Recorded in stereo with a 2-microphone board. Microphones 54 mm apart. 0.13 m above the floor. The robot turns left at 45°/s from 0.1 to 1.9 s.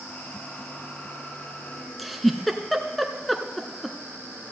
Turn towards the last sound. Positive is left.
turn(degrees=0)  # may be behind; listen again after turning